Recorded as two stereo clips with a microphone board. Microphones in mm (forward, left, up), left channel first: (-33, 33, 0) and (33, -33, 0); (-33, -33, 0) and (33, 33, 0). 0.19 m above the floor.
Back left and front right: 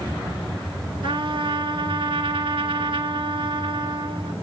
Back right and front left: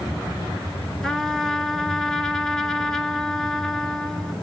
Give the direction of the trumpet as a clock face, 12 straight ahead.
2 o'clock.